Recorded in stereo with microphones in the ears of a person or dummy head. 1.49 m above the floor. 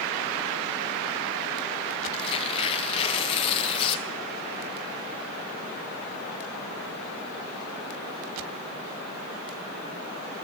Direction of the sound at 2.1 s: 35° left (ahead or behind).